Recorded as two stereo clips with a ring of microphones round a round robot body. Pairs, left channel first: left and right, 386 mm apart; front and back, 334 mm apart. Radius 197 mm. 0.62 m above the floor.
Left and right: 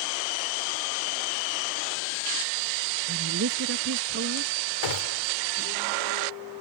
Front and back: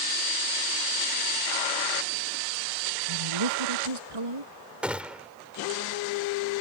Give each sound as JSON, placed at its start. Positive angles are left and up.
{"t": 3.1, "sound": "a woman speaking", "azimuth_deg": -150}
{"t": 4.8, "sound": "a gunshot", "azimuth_deg": 95}